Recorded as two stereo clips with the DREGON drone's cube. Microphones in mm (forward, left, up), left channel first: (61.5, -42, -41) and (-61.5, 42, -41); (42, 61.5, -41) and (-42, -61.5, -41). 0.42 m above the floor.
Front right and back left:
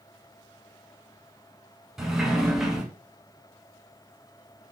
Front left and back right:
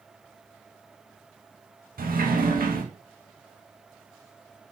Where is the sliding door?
125° right, 0.8 m.